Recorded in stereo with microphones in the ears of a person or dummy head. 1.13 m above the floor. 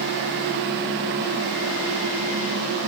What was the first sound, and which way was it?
Only background noise.